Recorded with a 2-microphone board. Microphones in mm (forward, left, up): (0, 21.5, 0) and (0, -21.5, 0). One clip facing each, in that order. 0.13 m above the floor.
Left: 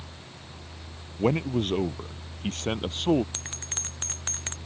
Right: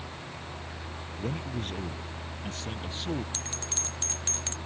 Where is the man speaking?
60° left (ahead or behind).